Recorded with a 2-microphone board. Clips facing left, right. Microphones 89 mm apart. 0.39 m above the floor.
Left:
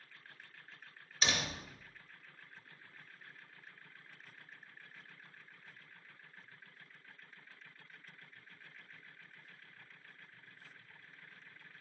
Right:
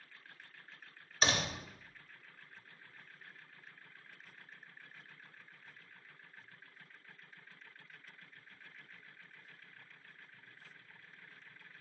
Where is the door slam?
45° right (ahead or behind), 0.9 m.